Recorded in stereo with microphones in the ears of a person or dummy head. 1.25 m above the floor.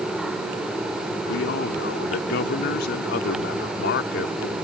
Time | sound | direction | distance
1.3 | a man speaking | 70° left (ahead or behind) | ?